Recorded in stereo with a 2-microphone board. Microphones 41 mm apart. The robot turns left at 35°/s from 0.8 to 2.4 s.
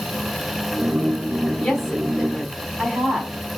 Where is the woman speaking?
10° left (ahead or behind), 4 m; by 3.3 s 15° right (ahead or behind), 4 m.